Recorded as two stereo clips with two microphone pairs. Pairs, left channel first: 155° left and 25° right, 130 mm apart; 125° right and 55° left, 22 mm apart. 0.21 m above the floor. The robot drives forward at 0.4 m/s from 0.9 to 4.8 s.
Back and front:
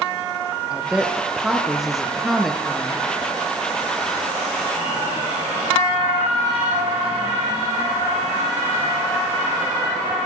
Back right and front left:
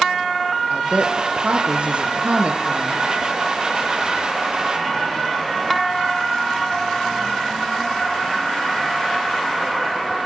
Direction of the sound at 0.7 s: 60° left.